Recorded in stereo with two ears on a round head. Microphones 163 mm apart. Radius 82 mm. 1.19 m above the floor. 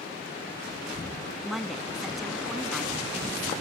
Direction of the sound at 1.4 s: Centre (ahead or behind).